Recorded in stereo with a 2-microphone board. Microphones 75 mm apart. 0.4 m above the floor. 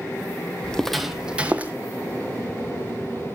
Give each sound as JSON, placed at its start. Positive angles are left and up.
{"t": 0.6, "sound": "footsteps", "side_deg": 15, "distance_m": 0.6}